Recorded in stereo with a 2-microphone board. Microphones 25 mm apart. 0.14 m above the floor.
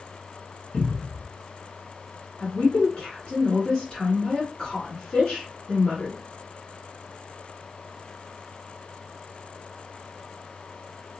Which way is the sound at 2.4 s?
40° left (ahead or behind).